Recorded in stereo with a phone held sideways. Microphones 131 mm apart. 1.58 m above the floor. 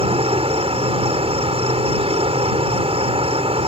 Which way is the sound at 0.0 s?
45° right (ahead or behind).